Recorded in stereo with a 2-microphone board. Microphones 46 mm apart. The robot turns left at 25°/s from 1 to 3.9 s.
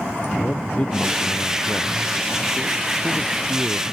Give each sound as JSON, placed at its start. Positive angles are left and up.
{"t": 0.4, "sound": "a man speaking", "azimuth_deg": 30}